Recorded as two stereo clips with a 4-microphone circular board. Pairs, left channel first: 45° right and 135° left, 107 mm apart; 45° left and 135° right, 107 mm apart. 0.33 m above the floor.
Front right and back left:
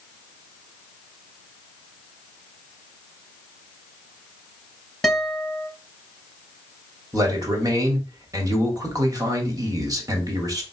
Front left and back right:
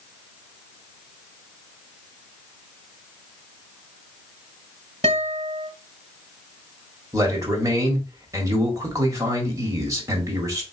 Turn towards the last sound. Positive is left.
turn(degrees=175)